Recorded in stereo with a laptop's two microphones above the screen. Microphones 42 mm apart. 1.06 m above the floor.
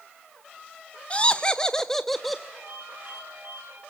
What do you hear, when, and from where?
1.1 s laughter: 30° left (ahead or behind), 0.7 m; by 2.4 s centre (ahead or behind), 1.0 m
2.5 s a ringtone: 45° right (ahead or behind), 6 m